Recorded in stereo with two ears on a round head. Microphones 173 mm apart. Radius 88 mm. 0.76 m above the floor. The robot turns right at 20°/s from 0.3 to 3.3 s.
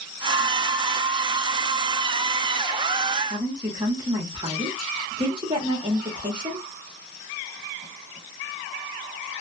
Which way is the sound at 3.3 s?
25° right (ahead or behind).